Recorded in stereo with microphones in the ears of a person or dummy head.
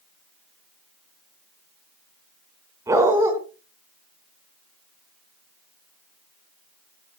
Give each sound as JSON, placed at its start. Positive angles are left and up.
{"t": 2.9, "sound": "a dog barking", "side_deg": -15, "distance_m": 4.5}